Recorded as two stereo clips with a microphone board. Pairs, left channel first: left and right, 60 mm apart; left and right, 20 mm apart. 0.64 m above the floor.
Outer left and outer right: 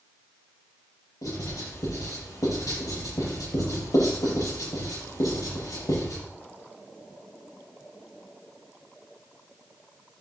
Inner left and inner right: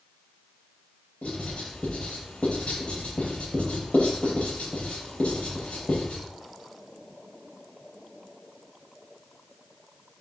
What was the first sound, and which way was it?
Writing, 75° left (ahead or behind).